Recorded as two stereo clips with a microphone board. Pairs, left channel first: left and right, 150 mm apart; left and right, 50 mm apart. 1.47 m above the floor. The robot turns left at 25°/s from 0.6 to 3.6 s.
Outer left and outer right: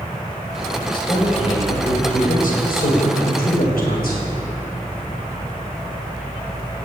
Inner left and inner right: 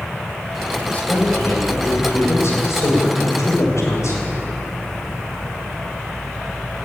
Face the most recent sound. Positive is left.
turn(degrees=85)